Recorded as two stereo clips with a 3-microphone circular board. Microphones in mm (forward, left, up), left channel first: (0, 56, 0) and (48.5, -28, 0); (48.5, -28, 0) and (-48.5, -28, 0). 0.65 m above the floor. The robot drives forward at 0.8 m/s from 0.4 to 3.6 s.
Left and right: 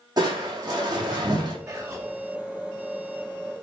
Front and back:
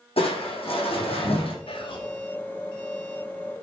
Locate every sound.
0.2 s crushing: 15° right, 5.5 m
1.7 s whispering: 5° right, 3 m